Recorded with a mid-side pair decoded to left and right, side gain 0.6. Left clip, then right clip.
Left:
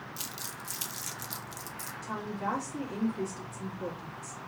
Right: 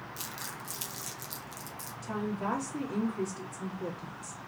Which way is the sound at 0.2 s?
10° left.